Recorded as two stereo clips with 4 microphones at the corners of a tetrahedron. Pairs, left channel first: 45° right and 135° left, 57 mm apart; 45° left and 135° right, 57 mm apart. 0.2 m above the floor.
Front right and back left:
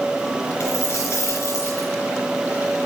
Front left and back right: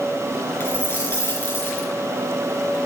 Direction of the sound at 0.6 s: 10° right.